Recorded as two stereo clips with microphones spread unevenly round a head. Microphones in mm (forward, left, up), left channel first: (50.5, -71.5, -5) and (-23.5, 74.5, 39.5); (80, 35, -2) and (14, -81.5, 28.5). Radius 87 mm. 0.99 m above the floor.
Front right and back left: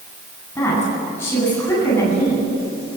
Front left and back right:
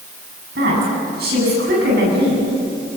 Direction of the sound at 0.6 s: 140° right.